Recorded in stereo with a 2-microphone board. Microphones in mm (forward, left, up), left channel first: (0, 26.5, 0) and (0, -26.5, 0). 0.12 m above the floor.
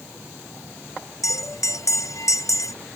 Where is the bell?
80° left.